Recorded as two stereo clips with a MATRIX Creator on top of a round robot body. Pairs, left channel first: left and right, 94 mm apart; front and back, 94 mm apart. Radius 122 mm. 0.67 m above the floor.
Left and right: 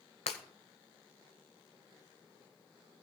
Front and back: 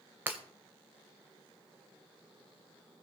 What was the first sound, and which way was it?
Breaking glass, 110° left.